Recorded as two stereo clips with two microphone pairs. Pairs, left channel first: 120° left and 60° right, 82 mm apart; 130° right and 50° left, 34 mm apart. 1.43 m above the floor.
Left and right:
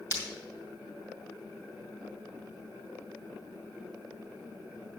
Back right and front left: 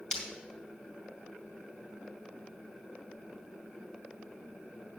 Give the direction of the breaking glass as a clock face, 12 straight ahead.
6 o'clock.